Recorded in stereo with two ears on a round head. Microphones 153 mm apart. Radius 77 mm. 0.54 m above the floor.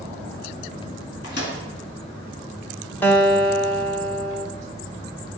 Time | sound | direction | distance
1.2 | a microwave | 75° left (ahead or behind) | 4.5 m
3.0 | a guitar | 10° left (ahead or behind) | 1.3 m